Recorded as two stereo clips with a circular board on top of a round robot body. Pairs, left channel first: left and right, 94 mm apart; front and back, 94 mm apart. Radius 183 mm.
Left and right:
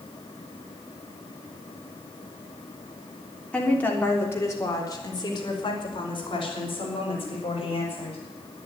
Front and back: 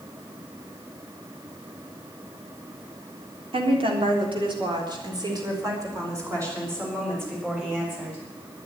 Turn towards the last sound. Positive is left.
turn(degrees=110)